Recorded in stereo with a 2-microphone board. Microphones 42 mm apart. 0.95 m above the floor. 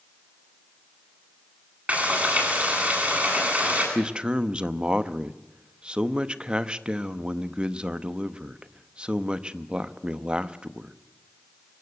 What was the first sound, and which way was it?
Frying, 35° right (ahead or behind).